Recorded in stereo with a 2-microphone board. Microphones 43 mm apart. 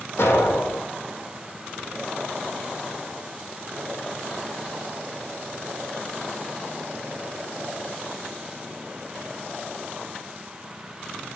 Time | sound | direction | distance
0.2 | an explosion | 80° left | 3.5 m